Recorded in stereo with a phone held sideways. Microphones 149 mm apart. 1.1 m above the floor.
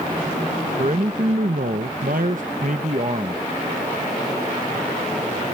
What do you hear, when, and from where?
0.8 s a man speaking: 50° right (ahead or behind); by 3.4 s 45° right (ahead or behind)